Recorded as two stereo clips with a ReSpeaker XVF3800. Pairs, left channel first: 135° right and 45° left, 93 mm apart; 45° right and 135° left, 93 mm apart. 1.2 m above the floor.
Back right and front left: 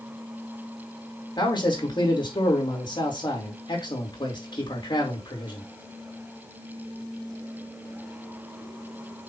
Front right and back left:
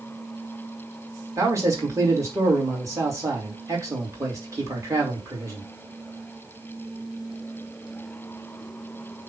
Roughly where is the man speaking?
Behind.